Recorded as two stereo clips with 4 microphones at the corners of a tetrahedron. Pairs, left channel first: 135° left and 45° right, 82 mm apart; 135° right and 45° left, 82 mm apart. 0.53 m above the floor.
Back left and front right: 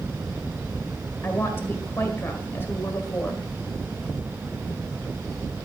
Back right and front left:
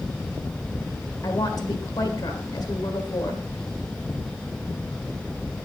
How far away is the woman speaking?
About 1.8 m.